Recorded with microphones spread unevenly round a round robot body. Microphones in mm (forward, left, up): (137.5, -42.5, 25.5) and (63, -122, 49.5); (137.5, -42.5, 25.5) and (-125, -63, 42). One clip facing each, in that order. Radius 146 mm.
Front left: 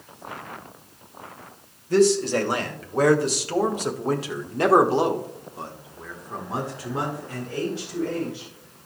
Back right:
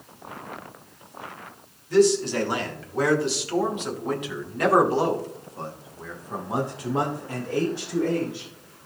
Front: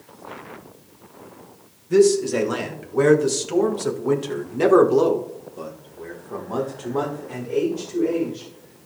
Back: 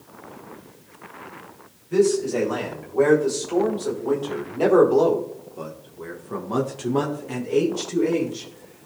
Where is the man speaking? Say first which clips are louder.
Even, front 3 dB; 25° left, 3 m; by 8.9 s 175° left, 2.5 m.